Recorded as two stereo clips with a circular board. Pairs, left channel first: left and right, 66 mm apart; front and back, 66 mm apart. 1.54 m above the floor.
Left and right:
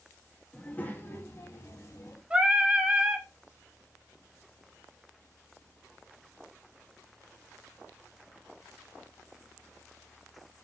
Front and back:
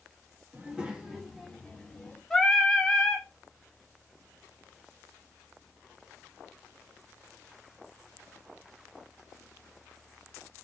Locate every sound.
0.5 s a child speaking: 140° left, 0.9 m; by 2.2 s 80° left, 1.5 m
2.3 s singing: 55° right, 0.6 m